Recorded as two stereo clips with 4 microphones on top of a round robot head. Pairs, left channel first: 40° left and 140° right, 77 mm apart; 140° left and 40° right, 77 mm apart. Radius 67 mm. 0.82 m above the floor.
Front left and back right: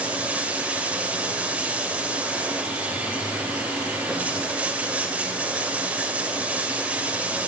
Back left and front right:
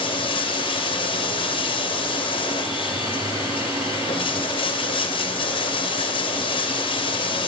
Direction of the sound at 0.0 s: 145° left.